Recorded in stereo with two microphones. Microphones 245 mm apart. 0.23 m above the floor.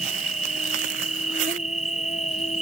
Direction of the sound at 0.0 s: 30° left (ahead or behind).